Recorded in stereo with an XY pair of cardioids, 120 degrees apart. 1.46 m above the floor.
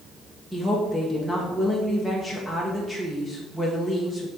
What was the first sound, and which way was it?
A woman speaking, 5° right.